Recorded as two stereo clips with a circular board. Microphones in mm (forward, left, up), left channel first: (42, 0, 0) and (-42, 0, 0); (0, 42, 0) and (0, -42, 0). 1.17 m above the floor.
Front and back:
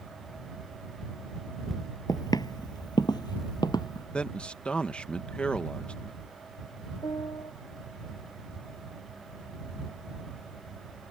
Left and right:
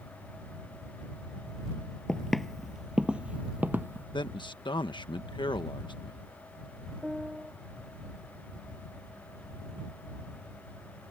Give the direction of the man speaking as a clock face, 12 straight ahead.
9 o'clock.